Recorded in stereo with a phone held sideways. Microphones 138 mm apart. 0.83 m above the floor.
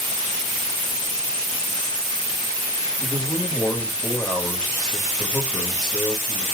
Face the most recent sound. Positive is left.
turn(degrees=5)  # may be behind; listen again after turning